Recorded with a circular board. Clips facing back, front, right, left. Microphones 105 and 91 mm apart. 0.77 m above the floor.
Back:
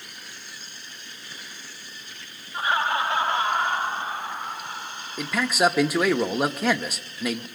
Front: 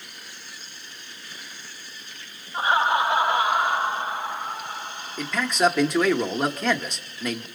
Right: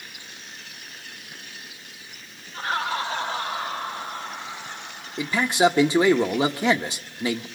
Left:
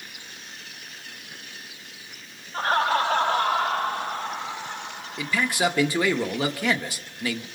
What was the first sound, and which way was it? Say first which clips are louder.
Laughter: front 3 dB, left 5 dB; 55° left.